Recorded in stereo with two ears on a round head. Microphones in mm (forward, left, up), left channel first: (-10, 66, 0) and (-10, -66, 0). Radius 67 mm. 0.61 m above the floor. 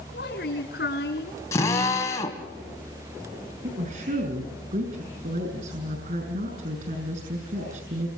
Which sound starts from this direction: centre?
A drill, at 1.5 s.